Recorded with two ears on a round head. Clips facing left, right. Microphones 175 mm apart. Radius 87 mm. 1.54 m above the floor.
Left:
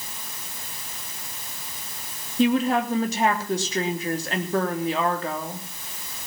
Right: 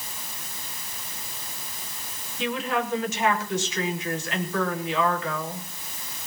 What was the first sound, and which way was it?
A woman speaking, 35° left (ahead or behind).